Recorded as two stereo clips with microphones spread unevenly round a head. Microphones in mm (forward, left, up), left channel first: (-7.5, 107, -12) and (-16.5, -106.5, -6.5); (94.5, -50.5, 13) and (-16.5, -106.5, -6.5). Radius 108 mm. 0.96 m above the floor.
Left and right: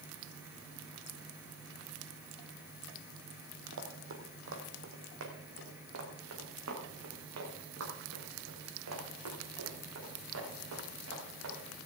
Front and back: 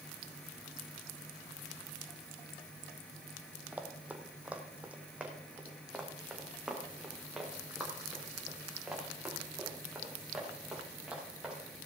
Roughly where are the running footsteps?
Right.